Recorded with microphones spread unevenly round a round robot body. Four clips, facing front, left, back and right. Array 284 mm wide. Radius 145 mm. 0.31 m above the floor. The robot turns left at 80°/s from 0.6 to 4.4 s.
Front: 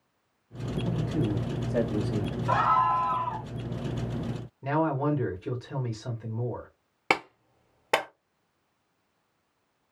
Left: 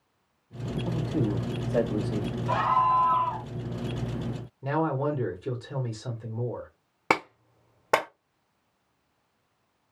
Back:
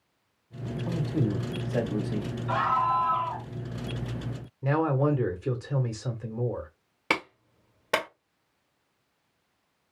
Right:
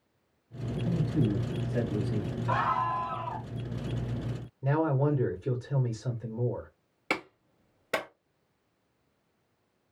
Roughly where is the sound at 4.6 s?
Behind right.